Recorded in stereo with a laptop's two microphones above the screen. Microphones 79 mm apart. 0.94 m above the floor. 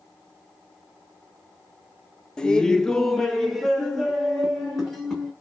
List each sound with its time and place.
2.4 s laughter: 10° left (ahead or behind), 0.5 m; by 5.3 s 5° right (ahead or behind), 1.3 m